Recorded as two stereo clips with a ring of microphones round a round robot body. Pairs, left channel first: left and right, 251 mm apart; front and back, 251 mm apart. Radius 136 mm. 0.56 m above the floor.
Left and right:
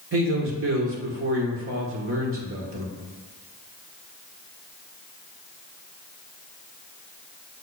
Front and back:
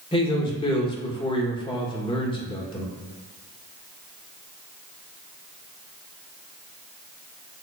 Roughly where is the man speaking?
Ahead right.